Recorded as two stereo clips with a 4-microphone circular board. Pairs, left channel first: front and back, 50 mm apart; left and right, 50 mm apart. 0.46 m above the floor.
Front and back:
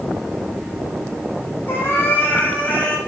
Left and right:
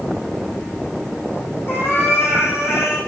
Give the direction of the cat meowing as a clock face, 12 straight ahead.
10 o'clock.